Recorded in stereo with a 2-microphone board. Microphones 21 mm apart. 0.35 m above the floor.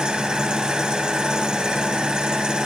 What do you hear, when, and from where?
0.0 s an engine running: 50° right (ahead or behind), 0.7 m